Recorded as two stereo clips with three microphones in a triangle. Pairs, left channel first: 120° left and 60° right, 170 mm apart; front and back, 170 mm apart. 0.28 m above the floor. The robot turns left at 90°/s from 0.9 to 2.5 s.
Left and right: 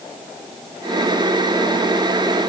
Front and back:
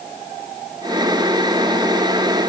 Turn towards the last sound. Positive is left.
No sound to turn to.